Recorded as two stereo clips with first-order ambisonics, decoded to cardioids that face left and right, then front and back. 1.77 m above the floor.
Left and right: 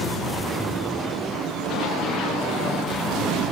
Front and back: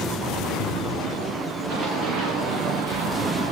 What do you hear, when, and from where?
1.7 s running footsteps: 140° left, 6 m; by 3.5 s 165° left, 7.5 m